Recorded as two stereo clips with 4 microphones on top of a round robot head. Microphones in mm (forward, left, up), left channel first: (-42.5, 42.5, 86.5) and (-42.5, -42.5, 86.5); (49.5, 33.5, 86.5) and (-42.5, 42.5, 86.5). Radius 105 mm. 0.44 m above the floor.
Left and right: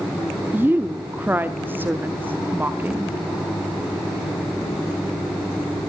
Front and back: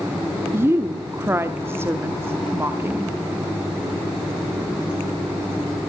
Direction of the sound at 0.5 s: 140° right.